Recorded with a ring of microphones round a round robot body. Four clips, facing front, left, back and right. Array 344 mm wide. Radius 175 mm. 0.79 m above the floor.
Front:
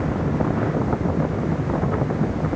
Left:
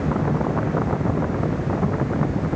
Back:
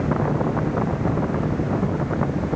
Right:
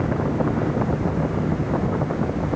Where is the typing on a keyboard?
I don't hear typing on a keyboard.